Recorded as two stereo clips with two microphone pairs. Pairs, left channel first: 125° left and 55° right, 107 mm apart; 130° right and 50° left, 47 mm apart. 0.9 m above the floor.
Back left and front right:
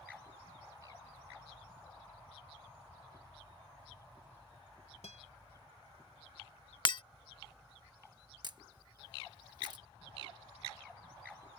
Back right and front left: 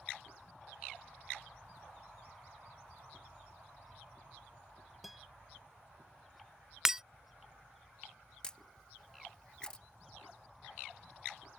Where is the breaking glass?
125° left.